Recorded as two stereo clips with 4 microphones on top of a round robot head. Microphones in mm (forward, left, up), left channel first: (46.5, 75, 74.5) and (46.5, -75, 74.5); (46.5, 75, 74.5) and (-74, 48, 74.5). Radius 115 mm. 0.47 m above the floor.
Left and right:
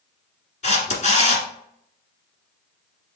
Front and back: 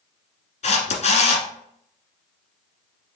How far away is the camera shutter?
About 1.2 m.